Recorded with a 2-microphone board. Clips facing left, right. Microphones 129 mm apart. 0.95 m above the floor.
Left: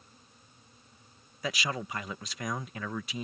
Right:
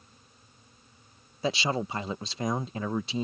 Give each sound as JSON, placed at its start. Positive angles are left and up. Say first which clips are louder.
{"t": 1.4, "sound": "a man speaking", "louder": "right 6 dB", "side_deg": -30}